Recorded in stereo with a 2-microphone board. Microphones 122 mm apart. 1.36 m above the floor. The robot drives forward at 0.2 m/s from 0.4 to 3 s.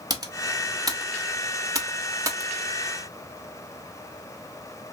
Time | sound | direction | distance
0.1 | typing on a keyboard | 30° right (ahead or behind) | 0.8 m